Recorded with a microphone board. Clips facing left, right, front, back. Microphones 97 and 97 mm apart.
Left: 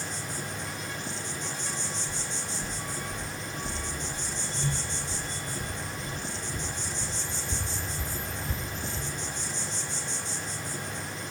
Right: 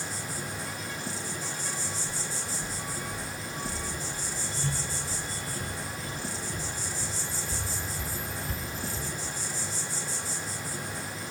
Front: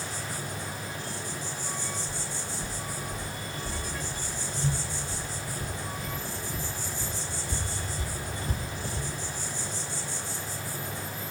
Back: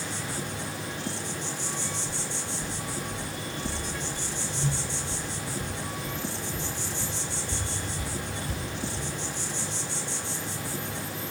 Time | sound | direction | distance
0.0 | an insect | 175° right | 1.0 m
2.1 | footsteps | 155° left | 3 m